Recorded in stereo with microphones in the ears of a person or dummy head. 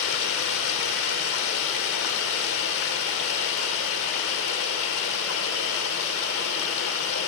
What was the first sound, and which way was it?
Running water, 60° left (ahead or behind).